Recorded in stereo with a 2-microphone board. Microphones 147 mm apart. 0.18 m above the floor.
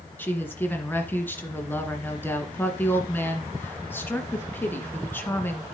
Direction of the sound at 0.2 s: 15° left (ahead or behind).